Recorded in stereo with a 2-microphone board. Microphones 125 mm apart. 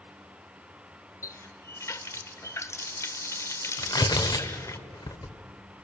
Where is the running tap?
25° left (ahead or behind), 0.8 m.